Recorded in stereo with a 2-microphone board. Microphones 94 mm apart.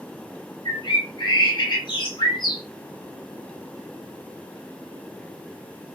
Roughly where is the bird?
Left.